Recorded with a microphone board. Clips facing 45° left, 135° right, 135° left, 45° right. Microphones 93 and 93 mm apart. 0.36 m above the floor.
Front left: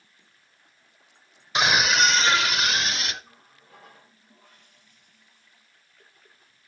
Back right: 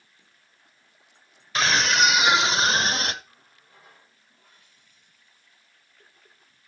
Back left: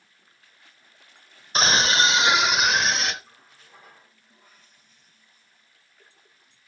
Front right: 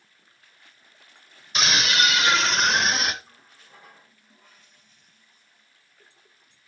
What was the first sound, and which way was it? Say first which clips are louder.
A scream: even, back left 3 dB; 110° left.